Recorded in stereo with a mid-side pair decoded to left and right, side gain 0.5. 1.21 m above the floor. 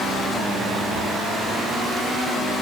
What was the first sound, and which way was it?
Only background noise.